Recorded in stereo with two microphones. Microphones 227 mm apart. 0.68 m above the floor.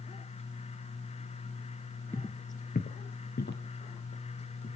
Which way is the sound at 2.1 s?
15° left (ahead or behind).